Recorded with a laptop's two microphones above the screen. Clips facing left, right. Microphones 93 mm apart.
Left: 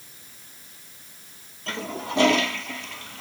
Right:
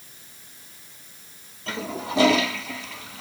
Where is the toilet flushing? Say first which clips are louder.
Right 1 dB; centre (ahead or behind).